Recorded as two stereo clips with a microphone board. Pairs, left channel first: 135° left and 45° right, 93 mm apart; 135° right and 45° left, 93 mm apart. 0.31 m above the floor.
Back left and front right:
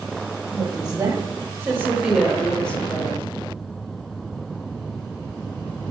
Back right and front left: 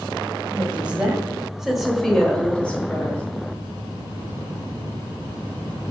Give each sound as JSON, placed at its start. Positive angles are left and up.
{"t": 0.5, "sound": "a woman speaking", "azimuth_deg": -25, "distance_m": 2.5}